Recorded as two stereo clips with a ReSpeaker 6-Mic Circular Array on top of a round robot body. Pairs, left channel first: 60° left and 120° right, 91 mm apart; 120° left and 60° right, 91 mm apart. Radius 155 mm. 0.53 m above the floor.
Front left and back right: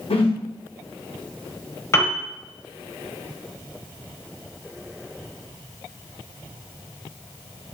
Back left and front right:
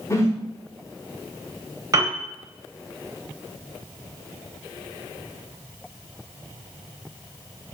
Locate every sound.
0.1 s a whoosh: 60° left, 1.1 m
1.9 s a piano: 5° right, 0.8 m